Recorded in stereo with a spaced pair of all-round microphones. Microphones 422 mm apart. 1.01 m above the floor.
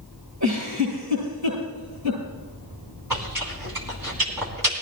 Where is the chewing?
55° right (ahead or behind), 3 m.